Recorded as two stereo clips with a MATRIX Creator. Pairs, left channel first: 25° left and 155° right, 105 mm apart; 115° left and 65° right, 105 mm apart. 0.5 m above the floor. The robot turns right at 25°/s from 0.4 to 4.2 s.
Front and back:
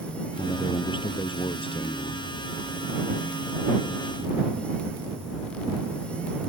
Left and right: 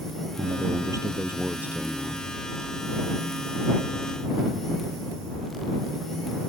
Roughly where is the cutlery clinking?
I don't hear cutlery clinking.